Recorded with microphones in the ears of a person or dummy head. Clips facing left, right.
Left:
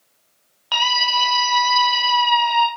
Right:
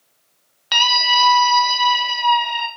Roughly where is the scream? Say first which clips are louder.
Right 2 dB; right.